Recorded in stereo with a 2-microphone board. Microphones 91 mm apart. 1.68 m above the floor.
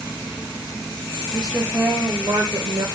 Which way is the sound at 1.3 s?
Centre (ahead or behind).